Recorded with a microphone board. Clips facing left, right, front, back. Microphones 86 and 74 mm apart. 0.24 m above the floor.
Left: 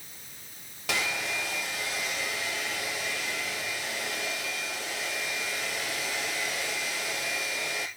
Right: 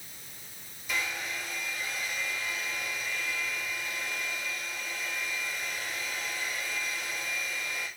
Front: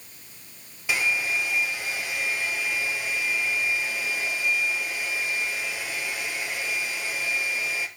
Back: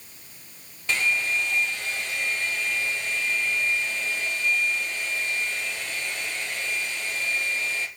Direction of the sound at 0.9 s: 80° left.